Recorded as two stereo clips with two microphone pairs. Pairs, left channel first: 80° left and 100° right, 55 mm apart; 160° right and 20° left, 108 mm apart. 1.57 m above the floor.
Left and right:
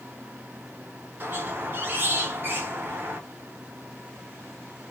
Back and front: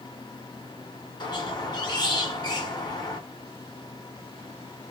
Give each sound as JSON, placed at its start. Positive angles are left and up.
{"t": 1.2, "sound": "a squeak", "azimuth_deg": -135, "distance_m": 0.7}